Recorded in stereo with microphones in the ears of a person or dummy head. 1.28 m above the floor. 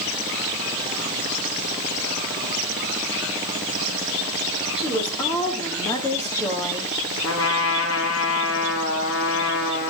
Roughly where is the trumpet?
Left.